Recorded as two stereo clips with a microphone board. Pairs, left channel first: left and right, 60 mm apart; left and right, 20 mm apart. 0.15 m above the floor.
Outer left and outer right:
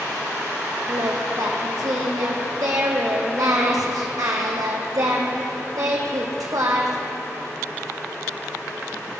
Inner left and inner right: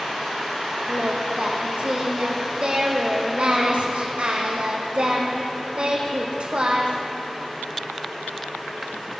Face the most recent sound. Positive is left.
turn(degrees=-80)